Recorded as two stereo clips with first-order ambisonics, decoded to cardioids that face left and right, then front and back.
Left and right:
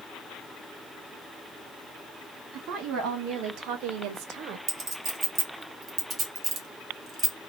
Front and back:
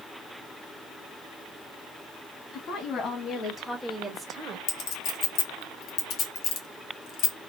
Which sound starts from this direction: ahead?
A clink, at 4.7 s.